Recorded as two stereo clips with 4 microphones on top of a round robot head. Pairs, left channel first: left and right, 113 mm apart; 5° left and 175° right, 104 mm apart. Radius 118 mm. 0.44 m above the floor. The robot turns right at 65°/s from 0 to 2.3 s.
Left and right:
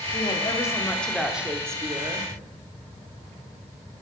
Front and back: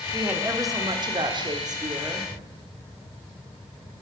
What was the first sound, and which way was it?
A woman speaking, 110° left.